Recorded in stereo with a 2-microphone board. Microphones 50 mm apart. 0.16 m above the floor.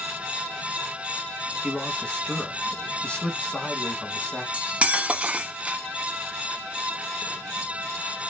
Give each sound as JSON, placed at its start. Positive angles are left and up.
{"t": 1.6, "sound": "a man speaking", "side_deg": 20, "distance_m": 1.0}
{"t": 4.5, "sound": "cutlery clinking", "side_deg": -25, "distance_m": 0.6}